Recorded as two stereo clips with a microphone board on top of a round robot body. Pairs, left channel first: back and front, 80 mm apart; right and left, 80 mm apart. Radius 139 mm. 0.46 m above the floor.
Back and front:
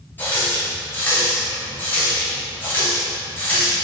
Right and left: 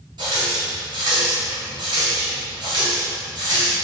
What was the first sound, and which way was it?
A running tap, 115° left.